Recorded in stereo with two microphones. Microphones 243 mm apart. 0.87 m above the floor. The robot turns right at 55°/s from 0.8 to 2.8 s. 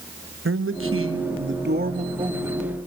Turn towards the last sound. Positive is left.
turn(degrees=5)